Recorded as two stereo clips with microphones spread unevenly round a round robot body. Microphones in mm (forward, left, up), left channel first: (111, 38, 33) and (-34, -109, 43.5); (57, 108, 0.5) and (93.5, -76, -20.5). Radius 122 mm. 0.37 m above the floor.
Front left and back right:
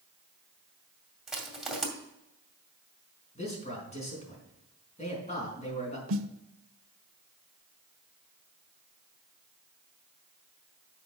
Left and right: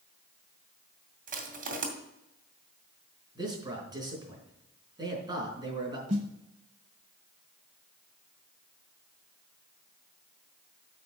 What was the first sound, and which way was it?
Crushing, 45° right.